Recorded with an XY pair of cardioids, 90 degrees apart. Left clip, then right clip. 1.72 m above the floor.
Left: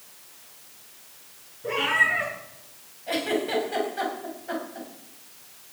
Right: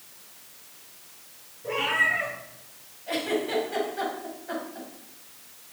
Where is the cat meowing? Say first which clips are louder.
Left 2 dB; 45° left, 6 m.